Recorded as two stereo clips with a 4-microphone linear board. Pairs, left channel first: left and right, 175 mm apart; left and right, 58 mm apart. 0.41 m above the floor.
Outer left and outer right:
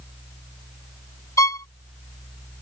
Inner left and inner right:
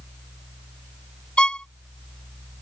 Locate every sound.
1.4 s a violin: 20° left (ahead or behind)